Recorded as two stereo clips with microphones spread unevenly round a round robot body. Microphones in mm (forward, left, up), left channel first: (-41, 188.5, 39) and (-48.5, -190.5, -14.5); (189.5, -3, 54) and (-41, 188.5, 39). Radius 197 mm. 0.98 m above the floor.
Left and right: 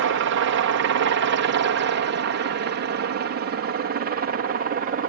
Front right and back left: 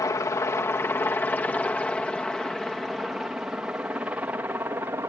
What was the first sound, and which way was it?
A helicopter, 120° right.